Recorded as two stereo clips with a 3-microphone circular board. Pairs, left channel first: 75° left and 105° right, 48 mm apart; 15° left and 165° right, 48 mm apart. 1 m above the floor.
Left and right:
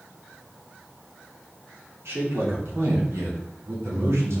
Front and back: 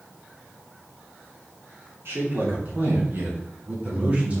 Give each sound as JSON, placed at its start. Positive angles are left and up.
{"t": 2.0, "sound": "a man speaking", "azimuth_deg": -130, "distance_m": 3.0}